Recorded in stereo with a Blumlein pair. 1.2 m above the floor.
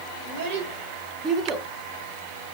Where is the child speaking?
50° right, 1.3 m; by 1.7 s straight ahead, 0.9 m.